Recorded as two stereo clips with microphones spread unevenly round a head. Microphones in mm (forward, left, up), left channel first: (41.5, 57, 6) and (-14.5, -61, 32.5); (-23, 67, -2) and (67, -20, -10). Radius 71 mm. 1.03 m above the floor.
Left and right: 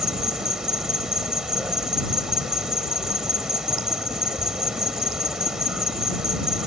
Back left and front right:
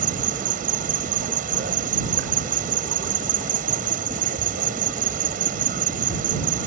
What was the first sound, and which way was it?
An insect, 30° right.